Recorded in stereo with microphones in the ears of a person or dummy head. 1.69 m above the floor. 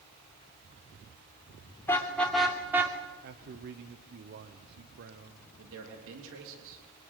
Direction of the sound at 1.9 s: 15° left (ahead or behind).